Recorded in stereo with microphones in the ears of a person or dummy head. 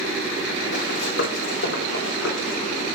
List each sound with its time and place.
0.7 s running footsteps: 60° left (ahead or behind), 4 m; by 2.6 s 70° left (ahead or behind), 5.5 m